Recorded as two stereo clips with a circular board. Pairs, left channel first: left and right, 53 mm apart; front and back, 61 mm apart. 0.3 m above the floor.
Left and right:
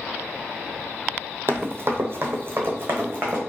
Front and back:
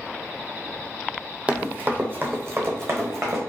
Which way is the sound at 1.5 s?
115° right.